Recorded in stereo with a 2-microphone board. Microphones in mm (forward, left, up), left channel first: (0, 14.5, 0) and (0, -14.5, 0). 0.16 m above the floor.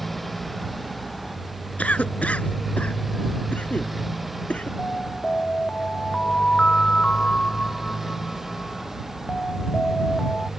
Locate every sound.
0.0 s a motorcycle: 5° left (ahead or behind); by 10.6 s 10° right (ahead or behind)
1.8 s a cough: 55° left (ahead or behind)
4.8 s an alarm: 40° left (ahead or behind)